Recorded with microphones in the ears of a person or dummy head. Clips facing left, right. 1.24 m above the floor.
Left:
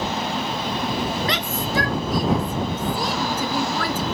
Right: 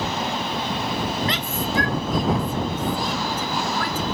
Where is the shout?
65° left (ahead or behind); by 4.0 s 70° left (ahead or behind).